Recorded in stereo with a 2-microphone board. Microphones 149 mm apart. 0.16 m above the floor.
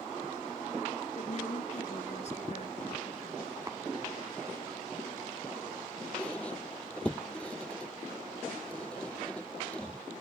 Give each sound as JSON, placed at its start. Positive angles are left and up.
{"t": 1.2, "sound": "a woman speaking", "side_deg": 50}
{"t": 3.7, "sound": "tapping", "side_deg": -20}
{"t": 6.2, "sound": "a squeak", "side_deg": 10}